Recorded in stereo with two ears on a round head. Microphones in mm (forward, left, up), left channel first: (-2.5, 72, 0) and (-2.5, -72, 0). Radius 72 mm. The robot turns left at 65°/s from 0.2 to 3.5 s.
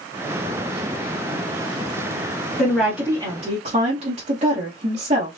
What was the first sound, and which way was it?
A woman speaking, 20° left.